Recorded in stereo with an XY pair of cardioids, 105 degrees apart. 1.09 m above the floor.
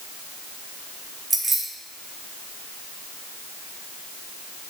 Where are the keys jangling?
15° right, 3.5 m.